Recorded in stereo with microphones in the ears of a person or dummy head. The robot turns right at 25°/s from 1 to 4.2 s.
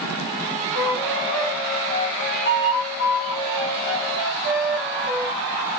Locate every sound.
0.7 s a flute: 35° left, 2.5 m; by 5.4 s 115° left, 2.5 m